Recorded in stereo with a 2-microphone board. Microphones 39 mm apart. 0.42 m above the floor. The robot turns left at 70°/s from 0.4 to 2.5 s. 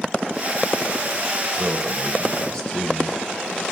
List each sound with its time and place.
1.5 s a man speaking: 135° right, 1.8 m; by 3.7 s 160° left, 1.8 m